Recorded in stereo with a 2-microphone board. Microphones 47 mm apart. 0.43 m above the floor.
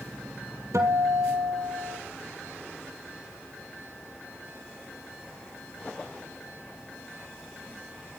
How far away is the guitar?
About 2.5 m.